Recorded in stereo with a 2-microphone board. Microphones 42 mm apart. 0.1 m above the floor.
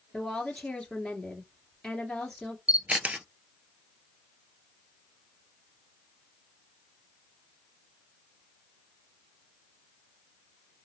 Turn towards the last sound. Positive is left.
turn(degrees=-35)  # may be behind; listen again after turning